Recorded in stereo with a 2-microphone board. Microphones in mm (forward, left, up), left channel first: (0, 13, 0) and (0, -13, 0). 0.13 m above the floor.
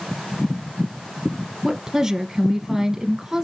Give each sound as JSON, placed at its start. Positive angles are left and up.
{"t": 1.6, "sound": "a woman speaking", "side_deg": -20, "distance_m": 2.0}